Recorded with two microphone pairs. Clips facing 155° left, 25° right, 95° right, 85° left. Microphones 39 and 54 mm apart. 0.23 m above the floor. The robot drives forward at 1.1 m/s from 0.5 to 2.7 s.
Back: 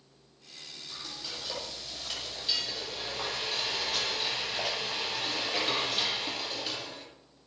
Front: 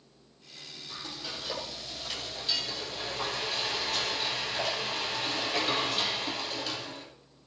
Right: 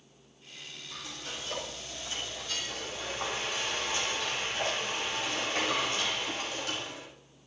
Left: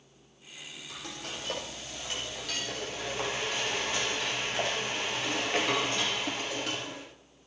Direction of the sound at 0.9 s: 50° left.